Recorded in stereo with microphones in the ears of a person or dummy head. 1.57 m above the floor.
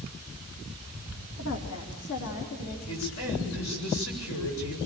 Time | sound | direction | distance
1.4 | a woman speaking | 70° left (ahead or behind) | 2.5 m
2.9 | a man speaking | 65° left (ahead or behind) | 8 m